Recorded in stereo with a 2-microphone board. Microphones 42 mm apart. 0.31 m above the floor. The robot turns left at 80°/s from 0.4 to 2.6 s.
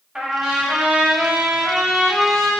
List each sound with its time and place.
0.1 s a trumpet: 25° right, 2 m; by 2.5 s 165° left, 2 m